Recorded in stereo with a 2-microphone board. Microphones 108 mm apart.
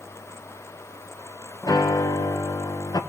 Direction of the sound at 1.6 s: 35° left (ahead or behind).